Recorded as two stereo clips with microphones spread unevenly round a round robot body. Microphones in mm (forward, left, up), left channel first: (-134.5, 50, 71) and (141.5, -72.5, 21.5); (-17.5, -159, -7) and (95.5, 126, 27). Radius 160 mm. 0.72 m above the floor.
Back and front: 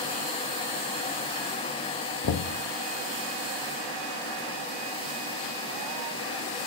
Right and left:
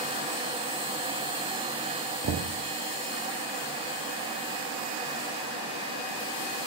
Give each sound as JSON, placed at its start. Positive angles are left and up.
{"t": 2.2, "sound": "knocking", "azimuth_deg": 120, "distance_m": 0.6}